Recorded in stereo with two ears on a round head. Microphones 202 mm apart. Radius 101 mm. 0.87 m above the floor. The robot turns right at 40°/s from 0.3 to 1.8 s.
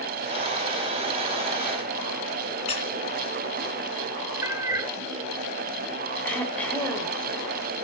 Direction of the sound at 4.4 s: 15° right (ahead or behind).